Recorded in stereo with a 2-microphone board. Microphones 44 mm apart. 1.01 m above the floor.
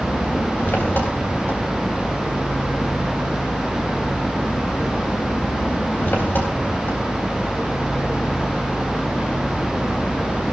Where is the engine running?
55° left (ahead or behind), 3.5 m.